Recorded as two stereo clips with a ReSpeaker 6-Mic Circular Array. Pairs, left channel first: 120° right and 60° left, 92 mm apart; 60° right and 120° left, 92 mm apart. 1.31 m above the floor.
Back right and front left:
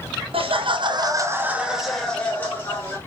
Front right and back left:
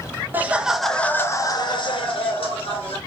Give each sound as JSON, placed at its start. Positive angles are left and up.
{"t": 0.3, "sound": "laughter", "azimuth_deg": 50, "distance_m": 0.6}